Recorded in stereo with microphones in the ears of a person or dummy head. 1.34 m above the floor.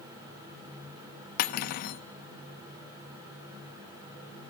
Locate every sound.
1.4 s cutlery clinking: 55° left (ahead or behind), 1.0 m